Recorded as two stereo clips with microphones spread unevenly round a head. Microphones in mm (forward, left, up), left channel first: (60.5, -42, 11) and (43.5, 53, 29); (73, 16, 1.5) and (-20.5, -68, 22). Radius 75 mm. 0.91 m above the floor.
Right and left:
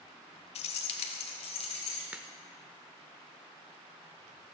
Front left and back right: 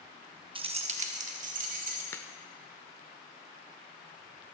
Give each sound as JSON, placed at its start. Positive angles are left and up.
{"t": 0.6, "sound": "keys jangling", "azimuth_deg": -90, "distance_m": 1.1}
{"t": 2.1, "sound": "a crack", "azimuth_deg": 110, "distance_m": 0.5}